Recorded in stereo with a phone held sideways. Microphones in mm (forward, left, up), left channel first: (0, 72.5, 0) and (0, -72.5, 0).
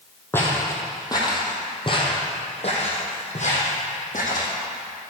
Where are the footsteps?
15° left (ahead or behind), 2.5 m; by 4.5 s 65° left (ahead or behind), 3 m.